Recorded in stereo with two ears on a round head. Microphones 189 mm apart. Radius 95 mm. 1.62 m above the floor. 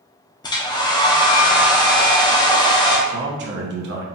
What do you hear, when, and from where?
0.4 s a hair dryer: 20° left (ahead or behind), 0.7 m
3.1 s a man speaking: 55° right (ahead or behind), 1.0 m